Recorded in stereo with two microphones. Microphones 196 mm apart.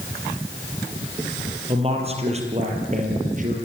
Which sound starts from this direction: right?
A man speaking, at 1.7 s.